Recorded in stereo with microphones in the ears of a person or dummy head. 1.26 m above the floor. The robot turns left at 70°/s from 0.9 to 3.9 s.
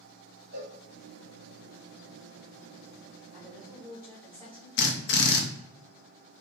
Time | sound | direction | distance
0.5 | a cowbell | 65° right (ahead or behind) | 1.2 m
3.3 | a woman speaking | 165° right | 1.4 m
4.8 | a drill | 55° left (ahead or behind) | 0.9 m